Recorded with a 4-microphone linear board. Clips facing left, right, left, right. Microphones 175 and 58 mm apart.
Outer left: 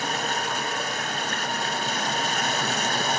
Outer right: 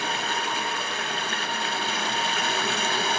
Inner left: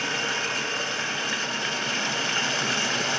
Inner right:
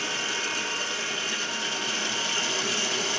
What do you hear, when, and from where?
0.0 s running water: 45° left (ahead or behind), 0.9 m